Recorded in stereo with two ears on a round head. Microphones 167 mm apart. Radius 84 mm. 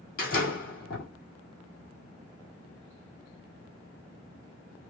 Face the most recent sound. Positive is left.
turn(degrees=45)  # may be behind; listen again after turning